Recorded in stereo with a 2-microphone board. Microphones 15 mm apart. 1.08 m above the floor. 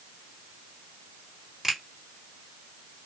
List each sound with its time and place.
1.6 s a finger snap: 15° right (ahead or behind), 1.8 m